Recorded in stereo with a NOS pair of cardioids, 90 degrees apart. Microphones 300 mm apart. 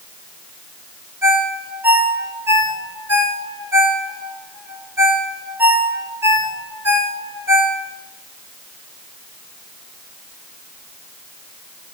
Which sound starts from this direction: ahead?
A ringtone, at 1.2 s.